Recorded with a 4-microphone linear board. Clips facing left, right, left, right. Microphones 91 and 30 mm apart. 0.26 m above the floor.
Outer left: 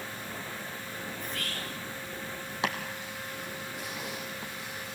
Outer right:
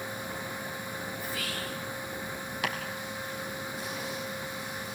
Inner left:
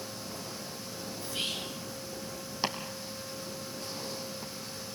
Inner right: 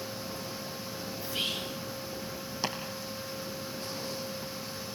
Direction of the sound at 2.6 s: 25° left (ahead or behind).